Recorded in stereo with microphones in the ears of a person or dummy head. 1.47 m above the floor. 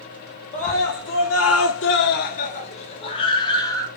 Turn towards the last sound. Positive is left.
turn(degrees=20)  # may be behind; listen again after turning